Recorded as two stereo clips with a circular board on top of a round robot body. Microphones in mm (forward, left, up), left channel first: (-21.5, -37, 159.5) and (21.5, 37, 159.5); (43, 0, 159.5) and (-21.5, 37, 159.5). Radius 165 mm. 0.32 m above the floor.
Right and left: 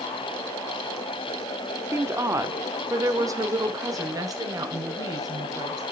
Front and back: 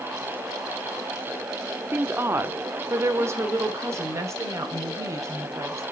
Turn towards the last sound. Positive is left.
turn(degrees=100)